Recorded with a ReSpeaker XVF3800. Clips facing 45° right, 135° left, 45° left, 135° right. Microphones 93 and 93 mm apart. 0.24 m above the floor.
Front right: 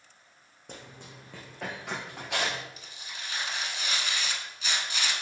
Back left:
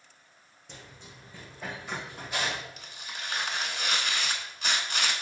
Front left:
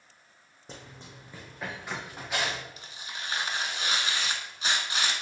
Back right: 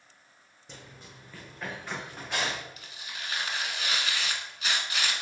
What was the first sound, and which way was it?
Running footsteps, 5° right.